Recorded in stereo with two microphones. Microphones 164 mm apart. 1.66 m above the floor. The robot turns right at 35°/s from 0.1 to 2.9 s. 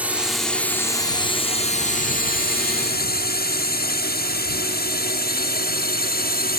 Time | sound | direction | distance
0.0 | a drone | 10° right (ahead or behind) | ?